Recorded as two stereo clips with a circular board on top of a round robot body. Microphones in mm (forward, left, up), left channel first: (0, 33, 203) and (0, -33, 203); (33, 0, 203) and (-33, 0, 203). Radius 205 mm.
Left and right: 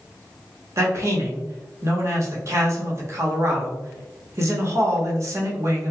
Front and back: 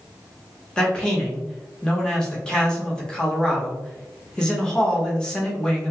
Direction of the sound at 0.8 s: 75° right.